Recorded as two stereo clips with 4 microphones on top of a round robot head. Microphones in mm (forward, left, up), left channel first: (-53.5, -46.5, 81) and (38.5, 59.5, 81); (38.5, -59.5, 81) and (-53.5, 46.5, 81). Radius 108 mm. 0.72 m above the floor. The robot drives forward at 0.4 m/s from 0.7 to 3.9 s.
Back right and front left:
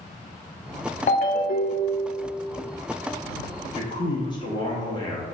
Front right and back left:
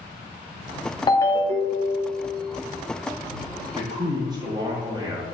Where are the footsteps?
I don't hear footsteps.